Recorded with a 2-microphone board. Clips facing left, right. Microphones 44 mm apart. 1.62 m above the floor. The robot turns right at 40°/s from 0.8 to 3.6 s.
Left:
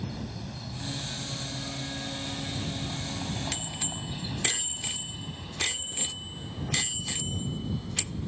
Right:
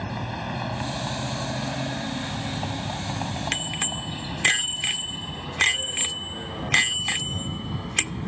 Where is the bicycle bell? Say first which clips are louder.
Right 8 dB; 50° right (ahead or behind); by 8.3 s 55° right (ahead or behind).